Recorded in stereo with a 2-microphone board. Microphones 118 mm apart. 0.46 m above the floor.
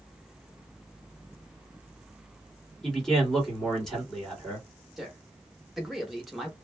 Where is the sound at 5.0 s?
Centre (ahead or behind), 0.8 m.